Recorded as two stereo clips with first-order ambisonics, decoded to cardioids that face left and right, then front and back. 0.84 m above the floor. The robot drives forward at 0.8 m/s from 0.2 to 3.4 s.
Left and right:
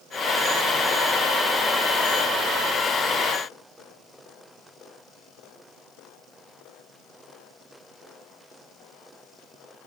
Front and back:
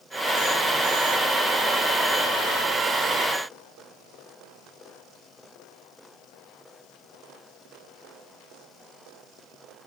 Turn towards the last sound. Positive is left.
No sound to turn to.